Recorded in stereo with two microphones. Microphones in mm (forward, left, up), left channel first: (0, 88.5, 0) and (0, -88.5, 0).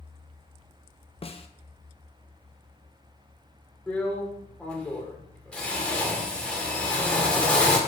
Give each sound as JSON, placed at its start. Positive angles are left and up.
{"t": 1.2, "sound": "a snare drum", "side_deg": 35, "distance_m": 0.5}
{"t": 3.9, "sound": "a drill", "side_deg": 5, "distance_m": 1.6}